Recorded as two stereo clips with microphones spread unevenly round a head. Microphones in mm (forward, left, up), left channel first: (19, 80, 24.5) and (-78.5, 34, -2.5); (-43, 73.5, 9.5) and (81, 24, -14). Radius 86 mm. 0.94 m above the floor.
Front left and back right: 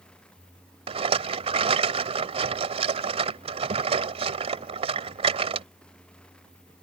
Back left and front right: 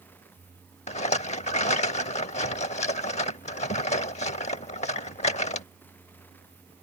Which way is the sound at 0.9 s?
175° left.